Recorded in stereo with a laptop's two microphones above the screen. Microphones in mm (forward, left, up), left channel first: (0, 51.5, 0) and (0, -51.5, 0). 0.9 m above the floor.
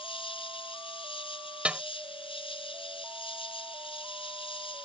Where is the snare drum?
10° right (ahead or behind).